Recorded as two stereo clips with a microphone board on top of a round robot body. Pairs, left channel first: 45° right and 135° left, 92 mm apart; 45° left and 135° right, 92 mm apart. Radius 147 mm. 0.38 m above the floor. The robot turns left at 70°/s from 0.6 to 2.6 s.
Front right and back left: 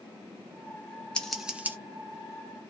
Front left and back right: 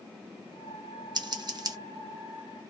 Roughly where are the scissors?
Behind right.